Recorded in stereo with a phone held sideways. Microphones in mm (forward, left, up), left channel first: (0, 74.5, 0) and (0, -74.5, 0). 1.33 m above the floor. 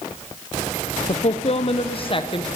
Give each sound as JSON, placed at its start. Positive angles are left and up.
{"t": 1.1, "sound": "a woman speaking", "side_deg": 50, "distance_m": 0.6}